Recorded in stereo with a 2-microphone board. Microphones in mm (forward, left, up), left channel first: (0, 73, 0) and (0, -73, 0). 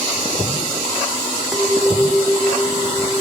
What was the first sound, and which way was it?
A clink, 5° right (ahead or behind).